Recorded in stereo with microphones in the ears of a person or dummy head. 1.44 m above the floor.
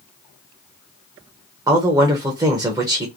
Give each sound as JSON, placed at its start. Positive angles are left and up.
{"t": 1.7, "sound": "a man speaking", "side_deg": -20, "distance_m": 1.0}